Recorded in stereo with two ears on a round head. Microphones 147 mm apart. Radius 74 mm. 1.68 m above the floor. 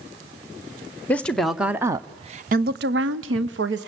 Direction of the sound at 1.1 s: 10° left (ahead or behind).